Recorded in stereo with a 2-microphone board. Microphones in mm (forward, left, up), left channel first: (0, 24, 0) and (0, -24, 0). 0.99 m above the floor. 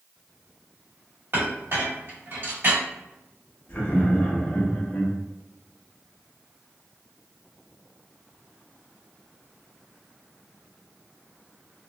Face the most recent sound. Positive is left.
turn(degrees=45)  # may be behind; listen again after turning